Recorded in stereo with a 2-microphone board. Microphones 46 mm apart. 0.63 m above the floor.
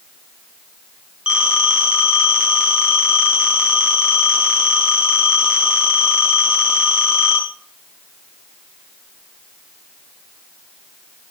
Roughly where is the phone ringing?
Centre.